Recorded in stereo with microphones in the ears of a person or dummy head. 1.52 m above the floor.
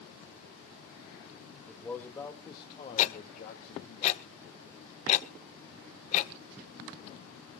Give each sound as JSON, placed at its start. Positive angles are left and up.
{"t": 1.7, "sound": "a man speaking", "side_deg": 0, "distance_m": 2.5}
{"t": 3.0, "sound": "ticking", "side_deg": 35, "distance_m": 0.8}